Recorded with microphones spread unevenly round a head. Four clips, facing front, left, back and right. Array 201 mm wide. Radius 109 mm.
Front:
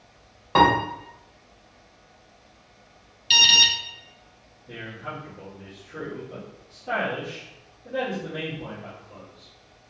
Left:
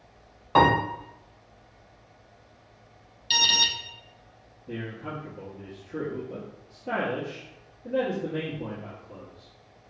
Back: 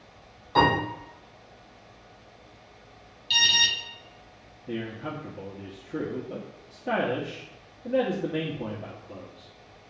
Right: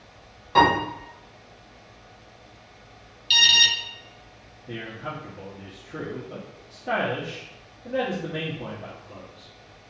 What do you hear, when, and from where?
0.6 s a piano: 10° left, 2.5 m
3.3 s an alarm: 25° left, 0.6 m
4.7 s a man speaking: 165° right, 0.9 m